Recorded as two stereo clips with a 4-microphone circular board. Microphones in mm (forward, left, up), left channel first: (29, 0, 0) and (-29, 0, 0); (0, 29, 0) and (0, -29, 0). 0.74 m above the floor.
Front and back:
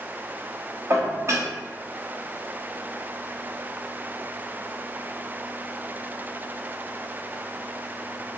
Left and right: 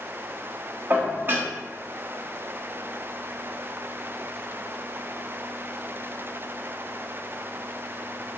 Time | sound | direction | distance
0.9 | dishes clattering | 140° right | 0.5 m